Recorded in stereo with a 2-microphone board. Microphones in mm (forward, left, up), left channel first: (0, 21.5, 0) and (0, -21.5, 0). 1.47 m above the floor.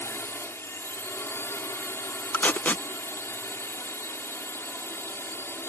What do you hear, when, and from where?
0.0 s a drone: 80° left
2.3 s tape being pulled: 45° left (ahead or behind)